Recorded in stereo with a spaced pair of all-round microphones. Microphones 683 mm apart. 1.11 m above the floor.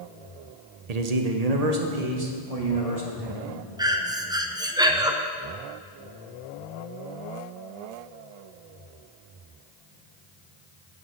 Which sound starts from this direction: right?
A man speaking, at 0.9 s.